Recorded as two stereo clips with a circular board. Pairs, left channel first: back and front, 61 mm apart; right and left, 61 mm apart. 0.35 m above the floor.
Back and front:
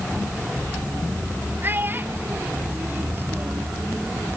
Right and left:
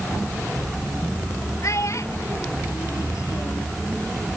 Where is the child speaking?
55° right.